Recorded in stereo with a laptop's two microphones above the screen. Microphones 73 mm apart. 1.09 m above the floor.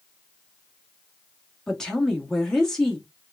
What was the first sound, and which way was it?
A woman speaking, 10° left (ahead or behind).